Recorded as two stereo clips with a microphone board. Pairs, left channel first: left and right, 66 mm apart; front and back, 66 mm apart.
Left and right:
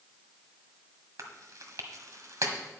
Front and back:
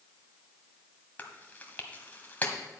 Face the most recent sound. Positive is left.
turn(degrees=-65)